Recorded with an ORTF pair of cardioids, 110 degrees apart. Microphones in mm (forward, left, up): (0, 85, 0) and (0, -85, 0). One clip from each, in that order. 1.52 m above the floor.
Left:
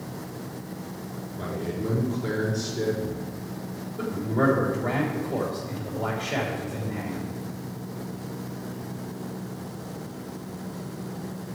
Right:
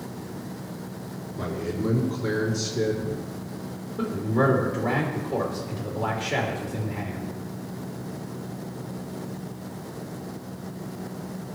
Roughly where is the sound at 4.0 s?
Ahead right.